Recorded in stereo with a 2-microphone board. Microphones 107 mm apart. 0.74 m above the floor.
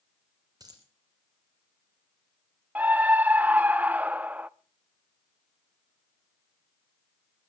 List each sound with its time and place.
0.6 s a dropped coin: 35° right (ahead or behind), 4.5 m
2.8 s a scream: 15° right (ahead or behind), 0.6 m